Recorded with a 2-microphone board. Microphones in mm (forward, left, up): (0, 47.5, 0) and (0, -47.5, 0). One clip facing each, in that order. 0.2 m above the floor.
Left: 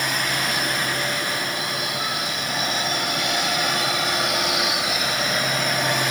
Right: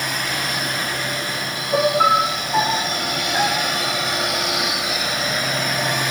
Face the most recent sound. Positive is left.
turn(degrees=-80)